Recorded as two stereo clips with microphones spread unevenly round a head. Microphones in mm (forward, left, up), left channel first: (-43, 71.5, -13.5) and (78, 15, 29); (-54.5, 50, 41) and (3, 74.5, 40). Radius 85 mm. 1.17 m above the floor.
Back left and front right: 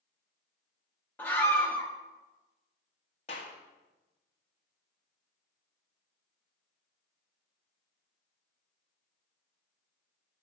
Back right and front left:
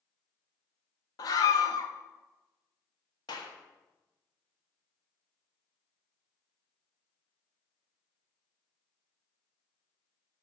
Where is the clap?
150° right, 1.6 m.